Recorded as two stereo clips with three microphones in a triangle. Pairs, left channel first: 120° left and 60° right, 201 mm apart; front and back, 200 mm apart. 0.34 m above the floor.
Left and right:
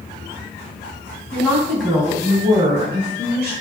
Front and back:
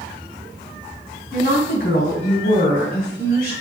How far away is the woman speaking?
About 3.5 m.